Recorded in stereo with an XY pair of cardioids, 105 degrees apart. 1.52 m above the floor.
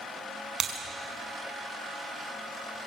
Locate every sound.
0.6 s breaking glass: 60° right, 4.5 m